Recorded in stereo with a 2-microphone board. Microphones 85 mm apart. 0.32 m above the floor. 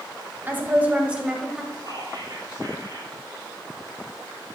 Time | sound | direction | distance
0.5 | a woman speaking | 25° right (ahead or behind) | 2 m
1.8 | whispering | 50° right (ahead or behind) | 6 m